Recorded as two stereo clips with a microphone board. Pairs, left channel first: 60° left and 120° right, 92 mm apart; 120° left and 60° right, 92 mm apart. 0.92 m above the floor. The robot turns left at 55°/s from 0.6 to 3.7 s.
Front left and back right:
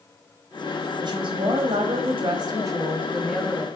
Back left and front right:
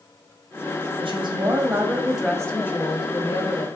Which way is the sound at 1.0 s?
80° right.